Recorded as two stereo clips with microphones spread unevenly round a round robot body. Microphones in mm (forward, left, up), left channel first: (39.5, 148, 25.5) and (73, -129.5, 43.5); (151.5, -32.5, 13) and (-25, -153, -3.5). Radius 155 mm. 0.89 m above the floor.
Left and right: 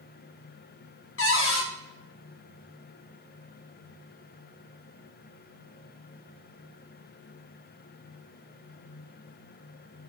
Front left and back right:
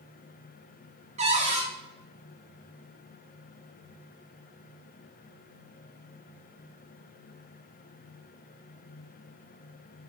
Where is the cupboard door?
145° left, 1.4 m.